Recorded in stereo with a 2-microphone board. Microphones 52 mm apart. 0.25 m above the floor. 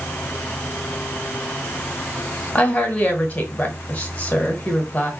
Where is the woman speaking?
30° left (ahead or behind), 1.3 m.